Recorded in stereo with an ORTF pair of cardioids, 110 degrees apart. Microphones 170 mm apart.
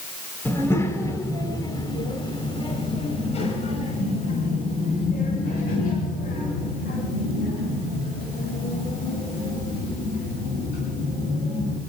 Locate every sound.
0.5 s a child speaking: 15° left, 4.5 m; by 11.8 s 75° left, 10 m